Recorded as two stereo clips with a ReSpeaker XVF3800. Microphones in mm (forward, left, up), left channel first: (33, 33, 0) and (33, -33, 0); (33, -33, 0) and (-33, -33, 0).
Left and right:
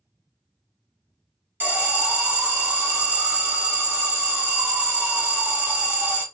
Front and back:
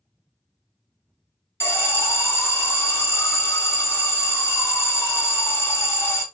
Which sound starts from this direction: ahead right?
An alarm, at 1.6 s.